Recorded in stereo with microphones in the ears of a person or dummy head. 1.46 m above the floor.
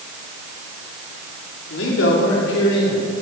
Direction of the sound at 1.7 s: 75° left (ahead or behind).